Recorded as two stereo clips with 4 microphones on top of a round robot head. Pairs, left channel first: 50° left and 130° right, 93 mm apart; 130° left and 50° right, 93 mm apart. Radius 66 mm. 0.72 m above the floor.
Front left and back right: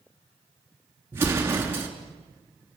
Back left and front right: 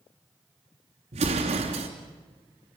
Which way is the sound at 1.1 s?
60° right.